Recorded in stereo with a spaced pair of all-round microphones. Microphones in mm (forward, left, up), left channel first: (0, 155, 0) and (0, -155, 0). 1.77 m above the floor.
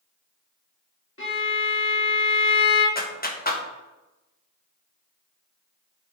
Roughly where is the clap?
Left.